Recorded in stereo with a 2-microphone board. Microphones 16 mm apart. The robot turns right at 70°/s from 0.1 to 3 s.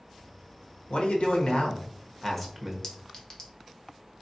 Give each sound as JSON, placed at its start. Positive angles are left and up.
{"t": 0.9, "sound": "a man speaking", "azimuth_deg": 65, "distance_m": 0.9}
{"t": 2.8, "sound": "a clink", "side_deg": 40, "distance_m": 0.8}